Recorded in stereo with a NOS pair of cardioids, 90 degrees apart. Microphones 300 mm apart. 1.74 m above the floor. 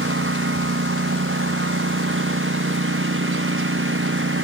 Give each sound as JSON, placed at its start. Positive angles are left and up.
{"t": 0.0, "sound": "a lawn mower", "azimuth_deg": -40}